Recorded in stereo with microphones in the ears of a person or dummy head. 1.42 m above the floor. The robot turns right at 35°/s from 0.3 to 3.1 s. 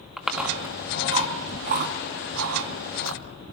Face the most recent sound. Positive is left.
turn(degrees=-80)